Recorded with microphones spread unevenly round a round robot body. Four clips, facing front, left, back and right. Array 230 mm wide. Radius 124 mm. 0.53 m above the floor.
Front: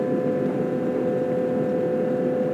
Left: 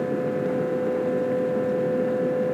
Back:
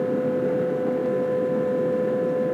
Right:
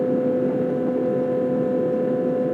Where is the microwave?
No microwave in this recording.